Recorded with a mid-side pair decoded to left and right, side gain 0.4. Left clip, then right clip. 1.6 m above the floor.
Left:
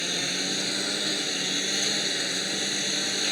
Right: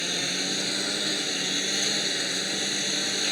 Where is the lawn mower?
5° right.